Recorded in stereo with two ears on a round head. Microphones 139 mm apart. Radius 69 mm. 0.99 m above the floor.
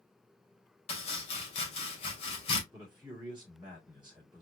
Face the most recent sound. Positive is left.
turn(degrees=-5)  # may be behind; listen again after turning